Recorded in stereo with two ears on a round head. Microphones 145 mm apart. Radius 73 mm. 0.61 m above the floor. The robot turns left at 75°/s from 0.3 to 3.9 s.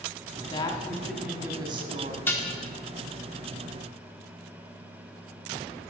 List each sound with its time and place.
0.5 s a woman speaking: 50° left, 1.1 m; by 2.2 s 75° right, 1.1 m
2.3 s dishes clattering: 10° left (ahead or behind), 0.8 m; by 2.5 s 30° left (ahead or behind), 0.8 m